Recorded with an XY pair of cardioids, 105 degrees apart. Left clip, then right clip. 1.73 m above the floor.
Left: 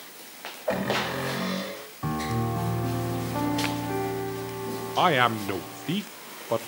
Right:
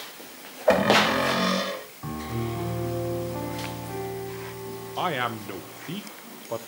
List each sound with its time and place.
0.7 s a cupboard door: 65° right, 3 m
2.0 s a piano: 45° left, 3.5 m
5.0 s a man speaking: 45° left, 1.0 m